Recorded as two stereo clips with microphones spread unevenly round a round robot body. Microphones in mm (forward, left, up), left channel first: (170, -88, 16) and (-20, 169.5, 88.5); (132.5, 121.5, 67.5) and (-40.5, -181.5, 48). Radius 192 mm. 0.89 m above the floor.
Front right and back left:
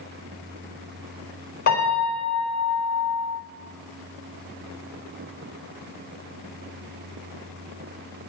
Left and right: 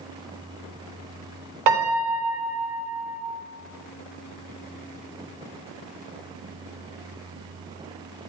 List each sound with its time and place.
1.7 s a piano: 120° right, 3.5 m